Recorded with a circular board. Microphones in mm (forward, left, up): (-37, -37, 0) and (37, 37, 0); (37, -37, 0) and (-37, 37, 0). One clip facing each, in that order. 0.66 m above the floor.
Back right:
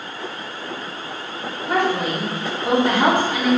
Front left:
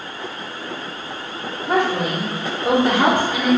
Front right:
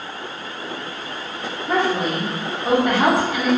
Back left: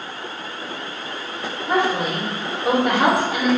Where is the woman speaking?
65° left, 1.7 m.